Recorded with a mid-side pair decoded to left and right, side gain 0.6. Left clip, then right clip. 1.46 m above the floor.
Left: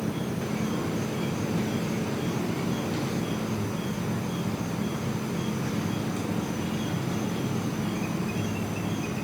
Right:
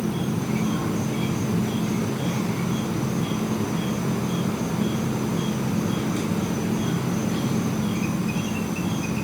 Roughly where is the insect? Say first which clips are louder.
Right 4 dB; ahead right.